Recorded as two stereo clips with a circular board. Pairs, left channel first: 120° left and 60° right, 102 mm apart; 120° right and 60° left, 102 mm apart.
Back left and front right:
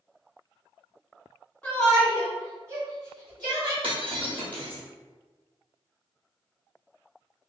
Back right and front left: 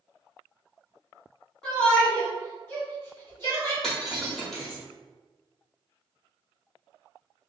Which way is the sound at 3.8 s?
35° right.